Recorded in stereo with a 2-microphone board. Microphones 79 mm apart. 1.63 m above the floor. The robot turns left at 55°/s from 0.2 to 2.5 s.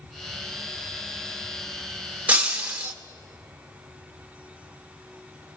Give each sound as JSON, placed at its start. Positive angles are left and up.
{"t": 2.3, "sound": "breaking glass", "side_deg": -25, "distance_m": 0.8}